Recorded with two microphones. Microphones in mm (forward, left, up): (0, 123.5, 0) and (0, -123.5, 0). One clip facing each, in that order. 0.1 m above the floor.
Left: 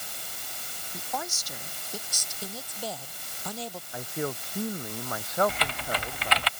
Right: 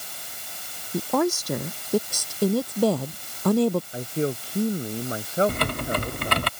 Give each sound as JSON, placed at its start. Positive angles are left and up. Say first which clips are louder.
{"t": 0.9, "sound": "a woman speaking", "louder": "right 16 dB", "side_deg": -65}
{"t": 3.9, "sound": "a man speaking", "louder": "right 6 dB", "side_deg": -30}
{"t": 5.5, "sound": "typing on a keyboard", "louder": "right 7 dB", "side_deg": -50}